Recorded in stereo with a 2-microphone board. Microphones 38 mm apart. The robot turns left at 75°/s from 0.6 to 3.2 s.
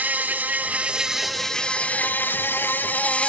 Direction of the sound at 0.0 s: 130° right.